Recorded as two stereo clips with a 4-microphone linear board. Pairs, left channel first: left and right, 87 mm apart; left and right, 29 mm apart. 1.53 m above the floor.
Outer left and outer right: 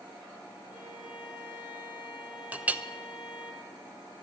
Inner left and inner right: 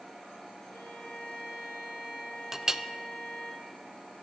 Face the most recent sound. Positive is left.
turn(degrees=-20)  # may be behind; listen again after turning